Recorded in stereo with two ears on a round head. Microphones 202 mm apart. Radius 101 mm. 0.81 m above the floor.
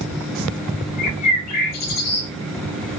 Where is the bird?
75° left (ahead or behind), 6 m.